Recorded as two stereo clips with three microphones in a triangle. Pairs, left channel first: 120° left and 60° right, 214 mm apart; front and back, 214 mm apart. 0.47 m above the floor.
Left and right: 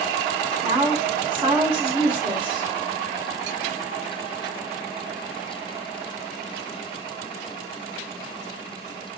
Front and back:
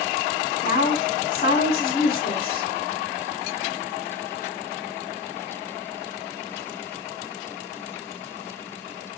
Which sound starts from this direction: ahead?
A woman speaking, at 0.6 s.